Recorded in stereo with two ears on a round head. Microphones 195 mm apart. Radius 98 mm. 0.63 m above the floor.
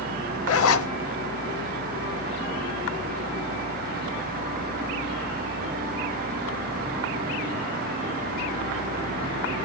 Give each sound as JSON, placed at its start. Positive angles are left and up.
{"t": 0.5, "sound": "a zipper", "side_deg": 70, "distance_m": 0.7}